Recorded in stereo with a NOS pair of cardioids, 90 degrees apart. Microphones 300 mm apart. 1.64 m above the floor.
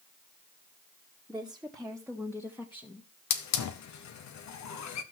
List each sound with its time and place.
1.3 s a woman speaking: 5° right, 1.9 m; by 3.1 s 20° left, 2 m
3.3 s a hiss: 65° left, 1.4 m